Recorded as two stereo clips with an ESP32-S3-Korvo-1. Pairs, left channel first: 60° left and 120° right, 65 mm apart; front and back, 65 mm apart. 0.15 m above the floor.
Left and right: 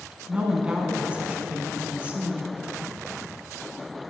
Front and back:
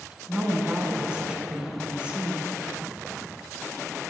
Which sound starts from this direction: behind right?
A woman speaking, at 0.3 s.